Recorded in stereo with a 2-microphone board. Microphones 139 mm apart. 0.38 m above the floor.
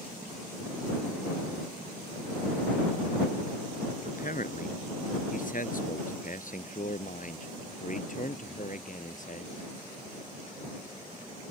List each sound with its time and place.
4.0 s a man speaking: 70° left (ahead or behind); by 9.5 s 60° left (ahead or behind)